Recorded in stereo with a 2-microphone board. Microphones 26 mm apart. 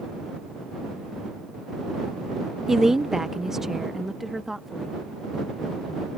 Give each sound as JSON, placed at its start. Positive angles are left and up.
{"t": 2.7, "sound": "a woman speaking", "side_deg": -15}